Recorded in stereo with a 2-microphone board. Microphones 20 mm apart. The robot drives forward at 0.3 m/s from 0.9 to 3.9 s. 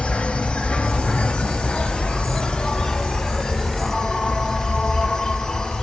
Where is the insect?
70° left (ahead or behind), 0.8 m; by 5.8 s 40° left (ahead or behind), 1.2 m.